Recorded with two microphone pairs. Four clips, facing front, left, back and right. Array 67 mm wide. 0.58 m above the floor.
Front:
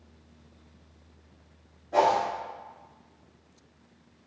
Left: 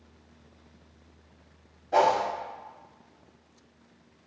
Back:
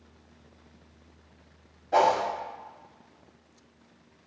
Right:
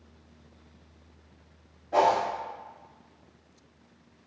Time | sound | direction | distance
1.9 | a whoosh | 175° left | 0.9 m